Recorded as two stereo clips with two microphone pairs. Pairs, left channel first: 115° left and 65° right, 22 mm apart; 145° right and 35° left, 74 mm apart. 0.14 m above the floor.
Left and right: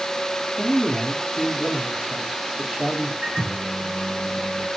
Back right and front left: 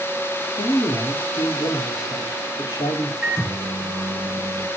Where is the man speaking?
125° right, 2 m.